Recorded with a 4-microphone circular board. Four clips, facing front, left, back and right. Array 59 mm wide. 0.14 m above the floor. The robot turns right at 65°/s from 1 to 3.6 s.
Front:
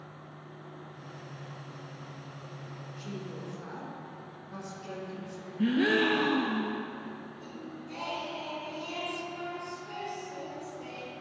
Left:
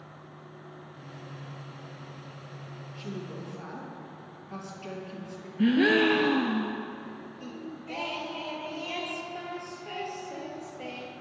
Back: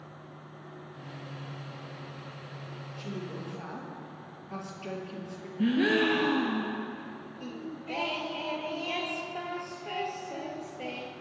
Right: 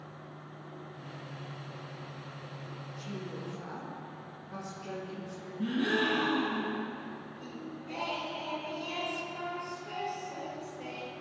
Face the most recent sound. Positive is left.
turn(degrees=155)